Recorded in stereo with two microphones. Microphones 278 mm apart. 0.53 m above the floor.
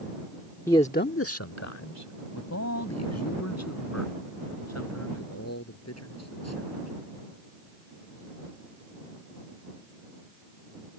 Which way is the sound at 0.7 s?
10° left (ahead or behind).